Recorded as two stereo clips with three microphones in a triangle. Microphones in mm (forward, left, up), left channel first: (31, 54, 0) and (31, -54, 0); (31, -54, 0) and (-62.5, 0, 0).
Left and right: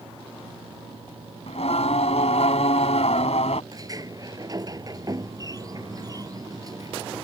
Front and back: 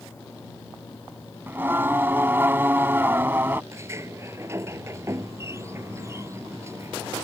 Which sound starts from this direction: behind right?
A sliding door, at 3.7 s.